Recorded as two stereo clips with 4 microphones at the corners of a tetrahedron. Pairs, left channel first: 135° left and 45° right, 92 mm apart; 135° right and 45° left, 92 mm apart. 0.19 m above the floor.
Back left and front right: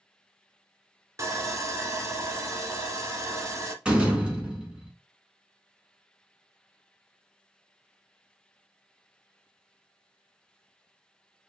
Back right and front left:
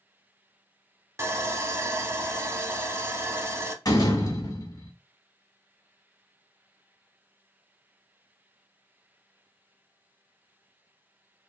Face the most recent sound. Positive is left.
turn(degrees=-115)